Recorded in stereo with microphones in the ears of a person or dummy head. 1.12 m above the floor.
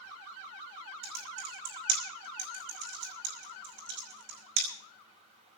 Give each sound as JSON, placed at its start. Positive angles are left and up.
{"t": 1.0, "sound": "typing on a keyboard", "side_deg": -60, "distance_m": 5.5}